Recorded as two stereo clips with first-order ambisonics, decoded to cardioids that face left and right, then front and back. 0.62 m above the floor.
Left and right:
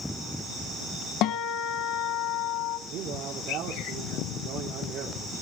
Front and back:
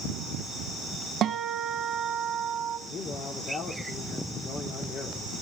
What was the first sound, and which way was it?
A guitar, 125° left.